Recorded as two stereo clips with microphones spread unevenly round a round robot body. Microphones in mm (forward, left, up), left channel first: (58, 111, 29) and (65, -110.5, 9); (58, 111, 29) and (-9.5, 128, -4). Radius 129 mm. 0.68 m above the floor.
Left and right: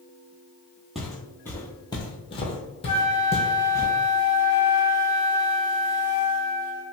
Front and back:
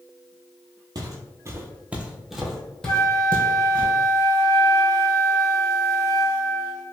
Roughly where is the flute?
Ahead left.